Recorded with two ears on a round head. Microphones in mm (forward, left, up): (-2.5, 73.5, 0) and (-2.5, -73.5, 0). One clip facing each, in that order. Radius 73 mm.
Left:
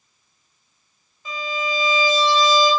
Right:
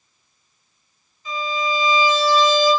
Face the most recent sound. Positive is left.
turn(degrees=45)  # may be behind; listen again after turning